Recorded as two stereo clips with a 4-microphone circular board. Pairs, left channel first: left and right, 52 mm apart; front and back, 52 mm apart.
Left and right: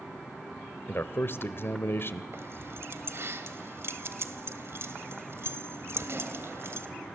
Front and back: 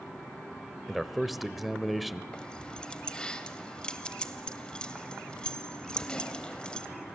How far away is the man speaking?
About 1.2 m.